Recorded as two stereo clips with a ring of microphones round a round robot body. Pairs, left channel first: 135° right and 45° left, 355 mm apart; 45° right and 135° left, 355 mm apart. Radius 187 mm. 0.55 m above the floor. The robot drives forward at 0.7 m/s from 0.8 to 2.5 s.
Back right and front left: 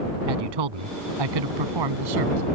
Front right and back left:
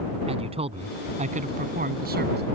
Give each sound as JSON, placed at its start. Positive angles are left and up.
{"t": 0.3, "sound": "a man speaking", "azimuth_deg": 60}